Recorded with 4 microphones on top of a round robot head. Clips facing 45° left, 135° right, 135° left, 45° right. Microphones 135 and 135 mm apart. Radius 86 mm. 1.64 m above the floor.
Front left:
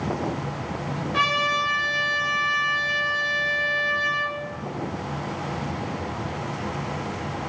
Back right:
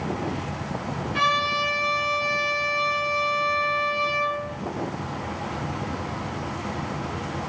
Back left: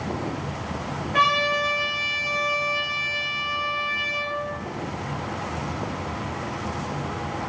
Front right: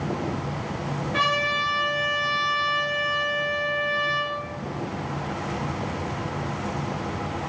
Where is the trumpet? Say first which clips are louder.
Back right 1 dB, back left 5 dB; 20° left, 1.2 m.